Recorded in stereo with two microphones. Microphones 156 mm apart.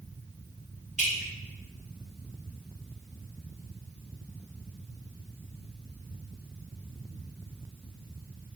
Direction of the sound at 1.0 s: 50° right (ahead or behind).